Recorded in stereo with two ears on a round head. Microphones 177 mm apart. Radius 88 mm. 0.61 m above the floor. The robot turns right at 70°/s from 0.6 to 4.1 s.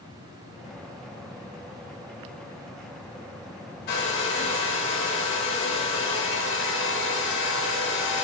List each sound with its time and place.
3.9 s a hair dryer: 50° left (ahead or behind), 0.8 m; by 8.2 s 65° left (ahead or behind), 0.8 m